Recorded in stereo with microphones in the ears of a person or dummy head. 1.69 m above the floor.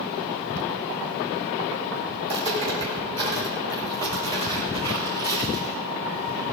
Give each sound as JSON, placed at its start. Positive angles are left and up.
{"t": 2.2, "sound": "footsteps", "side_deg": -30, "distance_m": 3.5}